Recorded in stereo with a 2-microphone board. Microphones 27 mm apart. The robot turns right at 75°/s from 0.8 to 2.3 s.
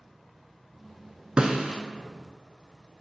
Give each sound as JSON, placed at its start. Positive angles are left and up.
{"t": 1.4, "sound": "a snare drum", "side_deg": -40, "distance_m": 0.5}